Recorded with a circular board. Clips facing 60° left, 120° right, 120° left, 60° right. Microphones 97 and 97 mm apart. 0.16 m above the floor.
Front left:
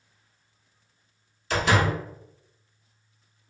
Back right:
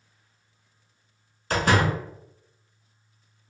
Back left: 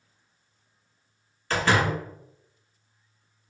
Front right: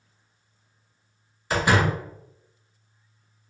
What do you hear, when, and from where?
1.5 s a door slam: 130° right, 1.0 m